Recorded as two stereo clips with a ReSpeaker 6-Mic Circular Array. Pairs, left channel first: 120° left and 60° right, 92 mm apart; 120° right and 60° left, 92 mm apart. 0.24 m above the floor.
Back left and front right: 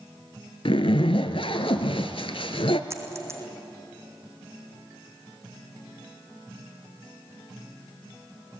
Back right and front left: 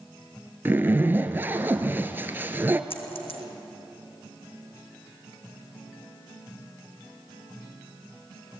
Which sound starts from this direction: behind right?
A dropped coin, at 2.9 s.